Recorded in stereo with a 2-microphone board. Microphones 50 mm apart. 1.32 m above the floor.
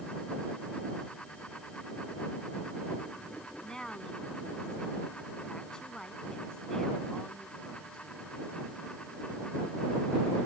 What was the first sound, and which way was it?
A woman speaking, 15° left (ahead or behind).